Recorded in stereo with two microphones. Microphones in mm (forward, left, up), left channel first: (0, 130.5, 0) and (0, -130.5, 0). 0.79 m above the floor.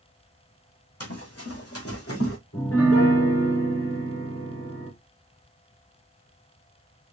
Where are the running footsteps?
70° left (ahead or behind), 1.9 m; by 2.4 s 60° left (ahead or behind), 1.8 m.